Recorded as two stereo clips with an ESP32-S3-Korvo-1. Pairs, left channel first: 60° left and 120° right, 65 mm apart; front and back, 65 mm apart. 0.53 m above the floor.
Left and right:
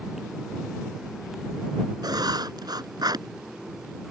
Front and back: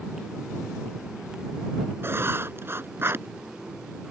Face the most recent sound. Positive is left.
turn(degrees=-125)